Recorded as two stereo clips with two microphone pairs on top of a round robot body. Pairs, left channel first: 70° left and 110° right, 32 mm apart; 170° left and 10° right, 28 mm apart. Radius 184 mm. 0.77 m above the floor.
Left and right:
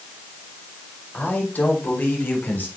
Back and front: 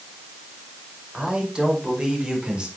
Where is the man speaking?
50° left, 6 m; by 2.7 s 45° left, 4 m.